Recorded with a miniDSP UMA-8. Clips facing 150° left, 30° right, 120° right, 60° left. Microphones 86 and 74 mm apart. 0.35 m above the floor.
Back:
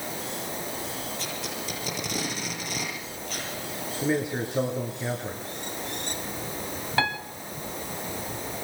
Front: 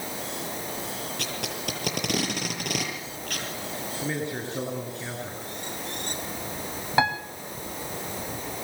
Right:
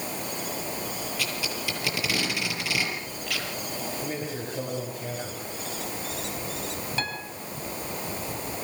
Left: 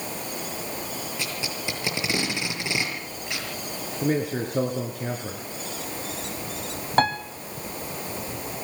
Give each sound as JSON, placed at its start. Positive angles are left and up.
{"t": 1.2, "sound": "tape being pulled", "azimuth_deg": -5, "distance_m": 8.5}
{"t": 4.0, "sound": "a man speaking", "azimuth_deg": 75, "distance_m": 5.5}
{"t": 7.0, "sound": "a piano", "azimuth_deg": 40, "distance_m": 2.5}